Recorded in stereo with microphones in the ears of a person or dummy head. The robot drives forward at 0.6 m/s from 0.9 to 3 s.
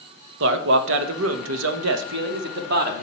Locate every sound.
0.4 s a man speaking: 75° right (ahead or behind), 1.1 m; by 3.0 s 50° right (ahead or behind), 1.4 m